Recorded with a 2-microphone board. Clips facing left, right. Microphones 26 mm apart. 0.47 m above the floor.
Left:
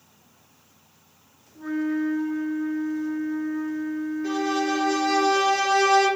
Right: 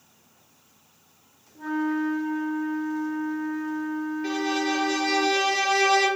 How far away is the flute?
About 0.9 m.